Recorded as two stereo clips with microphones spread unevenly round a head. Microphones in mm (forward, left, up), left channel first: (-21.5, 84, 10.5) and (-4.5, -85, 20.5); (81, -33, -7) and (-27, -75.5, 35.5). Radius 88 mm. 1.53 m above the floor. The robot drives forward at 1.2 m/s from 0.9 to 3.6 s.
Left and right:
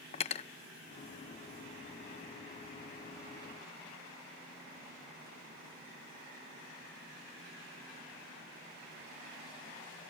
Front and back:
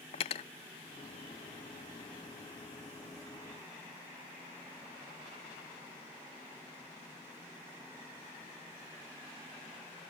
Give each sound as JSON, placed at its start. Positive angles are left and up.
{"t": 0.1, "sound": "cutlery clinking", "azimuth_deg": 70}